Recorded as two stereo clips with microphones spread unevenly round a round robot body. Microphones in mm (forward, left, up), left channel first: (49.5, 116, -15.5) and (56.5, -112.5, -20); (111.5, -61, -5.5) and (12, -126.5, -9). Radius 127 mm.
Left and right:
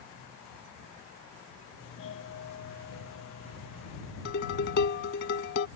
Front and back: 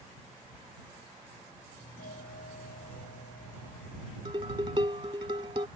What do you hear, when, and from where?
1.8 s a doorbell: 60° left
4.2 s dishes clattering: 145° left